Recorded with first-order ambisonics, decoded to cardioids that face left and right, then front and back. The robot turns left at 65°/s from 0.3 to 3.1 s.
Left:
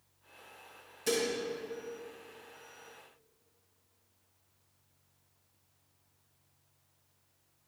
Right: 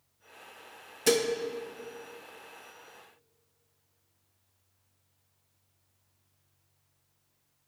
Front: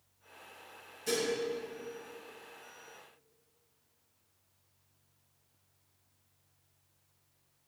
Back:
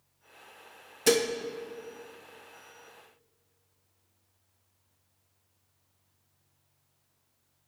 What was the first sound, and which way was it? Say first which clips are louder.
Dishes clattering: right 6 dB, back 8 dB; 145° right.